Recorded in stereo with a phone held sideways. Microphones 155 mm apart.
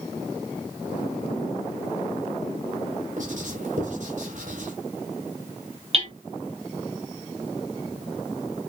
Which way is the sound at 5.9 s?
45° right (ahead or behind).